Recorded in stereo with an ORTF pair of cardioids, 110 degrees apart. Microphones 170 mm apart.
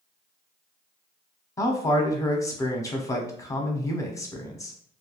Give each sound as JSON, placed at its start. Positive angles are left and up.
{"t": 1.6, "sound": "a man speaking", "azimuth_deg": 20, "distance_m": 0.7}